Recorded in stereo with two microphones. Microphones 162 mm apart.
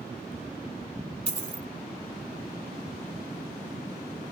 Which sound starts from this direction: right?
A dropped coin, at 1.3 s.